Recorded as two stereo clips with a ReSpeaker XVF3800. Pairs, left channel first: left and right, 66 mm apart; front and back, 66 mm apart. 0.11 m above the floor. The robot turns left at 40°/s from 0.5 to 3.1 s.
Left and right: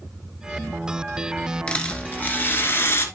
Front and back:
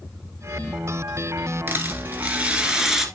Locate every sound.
1.7 s a rattle: 155° left, 1.8 m; by 3.0 s 95° left, 1.8 m